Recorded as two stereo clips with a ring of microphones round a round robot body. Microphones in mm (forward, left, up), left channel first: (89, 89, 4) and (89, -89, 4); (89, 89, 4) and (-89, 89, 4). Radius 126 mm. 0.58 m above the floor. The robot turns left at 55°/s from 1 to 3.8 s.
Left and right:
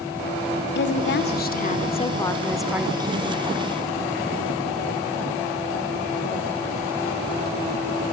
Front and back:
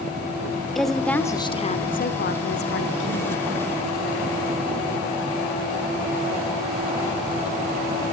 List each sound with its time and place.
0.8 s a woman speaking: 90° left, 1.5 m; by 3.4 s 45° right, 1.5 m